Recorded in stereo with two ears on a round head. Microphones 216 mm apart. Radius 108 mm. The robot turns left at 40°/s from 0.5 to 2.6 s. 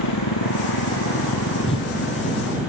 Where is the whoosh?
25° left (ahead or behind); by 1.9 s 15° left (ahead or behind).